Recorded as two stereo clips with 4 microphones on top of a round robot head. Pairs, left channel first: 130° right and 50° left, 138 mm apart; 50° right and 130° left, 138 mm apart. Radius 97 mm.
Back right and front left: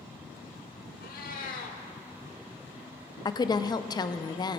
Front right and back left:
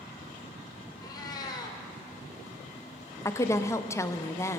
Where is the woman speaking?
105° right, 0.6 m.